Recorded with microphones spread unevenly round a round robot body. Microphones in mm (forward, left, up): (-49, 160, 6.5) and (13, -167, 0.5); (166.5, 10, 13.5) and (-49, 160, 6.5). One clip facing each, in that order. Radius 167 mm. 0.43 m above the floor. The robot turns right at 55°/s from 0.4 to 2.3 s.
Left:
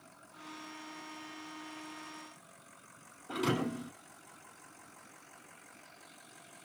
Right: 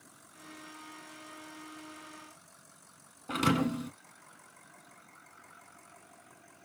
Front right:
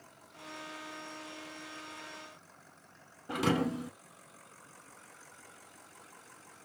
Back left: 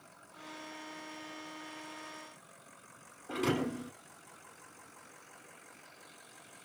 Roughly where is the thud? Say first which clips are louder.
Right 4 dB, front right 2 dB; right.